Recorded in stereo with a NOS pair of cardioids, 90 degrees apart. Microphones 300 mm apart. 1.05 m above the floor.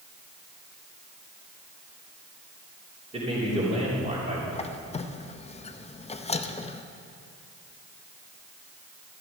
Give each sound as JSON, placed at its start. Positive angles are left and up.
{"t": 3.1, "sound": "a man speaking", "azimuth_deg": -20, "distance_m": 3.0}
{"t": 4.5, "sound": "a squeak", "azimuth_deg": 20, "distance_m": 0.6}